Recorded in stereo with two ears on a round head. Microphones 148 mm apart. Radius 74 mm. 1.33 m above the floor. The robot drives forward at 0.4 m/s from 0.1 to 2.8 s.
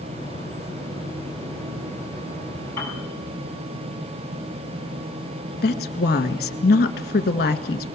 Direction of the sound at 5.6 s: 65° left (ahead or behind).